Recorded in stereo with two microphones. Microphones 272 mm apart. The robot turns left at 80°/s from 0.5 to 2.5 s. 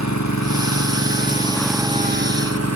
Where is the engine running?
95° left, 3.5 m; by 2.8 s 65° right, 3.5 m.